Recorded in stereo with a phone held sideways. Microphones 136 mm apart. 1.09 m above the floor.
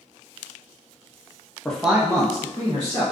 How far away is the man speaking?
About 0.5 m.